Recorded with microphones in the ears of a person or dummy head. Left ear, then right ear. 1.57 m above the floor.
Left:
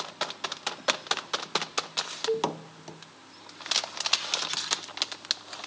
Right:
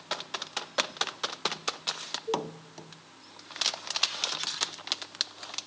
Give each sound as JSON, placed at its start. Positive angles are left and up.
{"t": 2.3, "sound": "a cowbell", "side_deg": 85, "distance_m": 2.5}